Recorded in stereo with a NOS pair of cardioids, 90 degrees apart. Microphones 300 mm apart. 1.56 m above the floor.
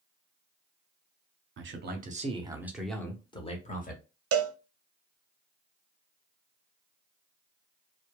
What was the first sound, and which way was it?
A man speaking, 45° right.